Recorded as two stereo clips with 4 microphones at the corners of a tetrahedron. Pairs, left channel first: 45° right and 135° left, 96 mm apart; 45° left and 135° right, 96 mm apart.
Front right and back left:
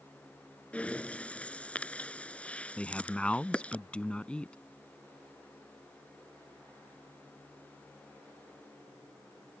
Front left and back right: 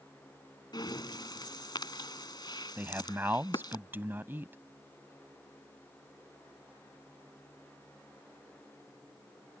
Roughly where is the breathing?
Ahead left.